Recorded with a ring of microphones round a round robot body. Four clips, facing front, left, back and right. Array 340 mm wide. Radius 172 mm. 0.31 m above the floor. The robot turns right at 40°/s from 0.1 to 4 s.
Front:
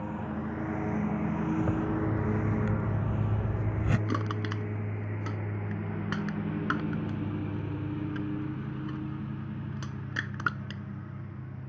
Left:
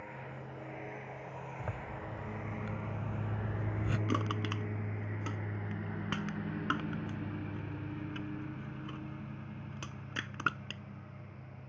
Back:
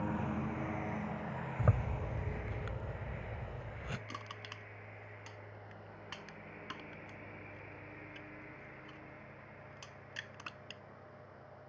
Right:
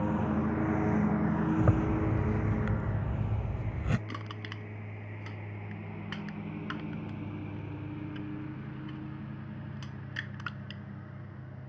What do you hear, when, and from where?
0.0 s a lawn mower: 90° right; by 11.7 s 10° right
1.6 s a zipper: 115° right; by 4.0 s 20° right
4.1 s crushing: 35° left